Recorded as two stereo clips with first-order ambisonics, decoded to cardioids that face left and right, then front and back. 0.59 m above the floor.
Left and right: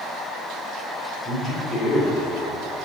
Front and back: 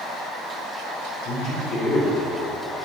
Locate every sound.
1.2 s a man speaking: 35° left, 2 m